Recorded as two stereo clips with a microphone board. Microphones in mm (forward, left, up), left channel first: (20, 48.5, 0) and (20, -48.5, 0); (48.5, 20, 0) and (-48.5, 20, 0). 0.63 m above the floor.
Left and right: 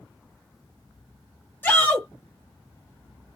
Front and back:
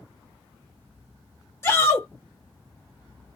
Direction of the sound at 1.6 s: 40° left.